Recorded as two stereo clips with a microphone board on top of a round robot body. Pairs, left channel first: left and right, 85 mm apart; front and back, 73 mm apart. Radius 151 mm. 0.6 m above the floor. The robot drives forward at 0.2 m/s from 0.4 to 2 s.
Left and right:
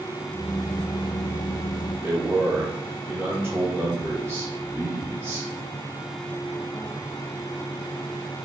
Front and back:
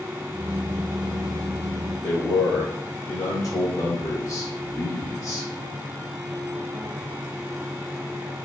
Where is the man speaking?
35° right, 1.5 m.